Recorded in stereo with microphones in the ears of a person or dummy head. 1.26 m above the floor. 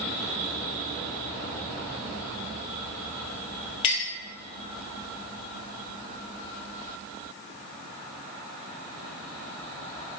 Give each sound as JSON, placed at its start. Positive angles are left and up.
{"t": 3.8, "sound": "a clink", "side_deg": 40, "distance_m": 0.9}